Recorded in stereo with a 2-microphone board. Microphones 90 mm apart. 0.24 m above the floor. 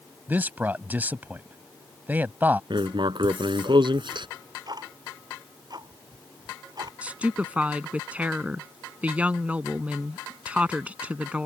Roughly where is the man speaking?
Right.